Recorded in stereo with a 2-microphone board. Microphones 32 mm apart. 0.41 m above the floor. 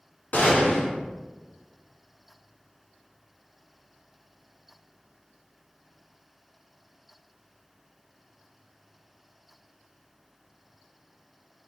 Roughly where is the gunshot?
Left.